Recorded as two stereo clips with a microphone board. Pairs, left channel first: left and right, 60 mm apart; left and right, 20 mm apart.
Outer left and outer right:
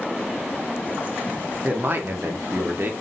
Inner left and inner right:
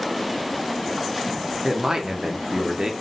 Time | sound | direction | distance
1.6 | a man speaking | 35° right (ahead or behind) | 0.7 m